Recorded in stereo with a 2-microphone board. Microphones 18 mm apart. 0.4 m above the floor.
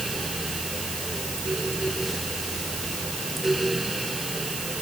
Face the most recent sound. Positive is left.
No sound to turn to.